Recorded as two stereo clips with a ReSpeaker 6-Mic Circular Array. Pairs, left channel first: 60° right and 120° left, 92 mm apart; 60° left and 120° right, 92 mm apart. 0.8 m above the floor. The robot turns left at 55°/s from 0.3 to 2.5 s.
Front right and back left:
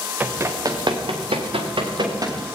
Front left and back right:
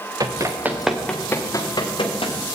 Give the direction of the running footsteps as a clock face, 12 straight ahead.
6 o'clock.